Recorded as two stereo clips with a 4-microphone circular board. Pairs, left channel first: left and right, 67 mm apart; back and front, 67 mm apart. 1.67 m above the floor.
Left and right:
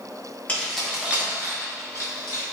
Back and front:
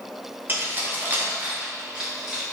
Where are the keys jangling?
40° left, 0.8 m; by 2.4 s 80° right, 1.5 m.